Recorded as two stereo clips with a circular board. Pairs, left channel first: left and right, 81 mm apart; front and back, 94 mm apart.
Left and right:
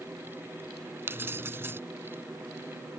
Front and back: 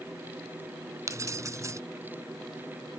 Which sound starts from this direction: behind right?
Keys jangling, at 1.1 s.